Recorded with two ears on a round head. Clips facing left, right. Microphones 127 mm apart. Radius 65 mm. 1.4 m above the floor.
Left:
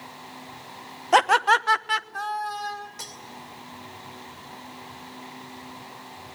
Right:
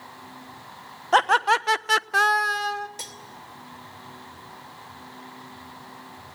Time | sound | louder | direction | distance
1.1 | laughter | left 1 dB | 10° left (ahead or behind) | 1.0 m
3.0 | cutlery clinking | even | 25° right (ahead or behind) | 2.5 m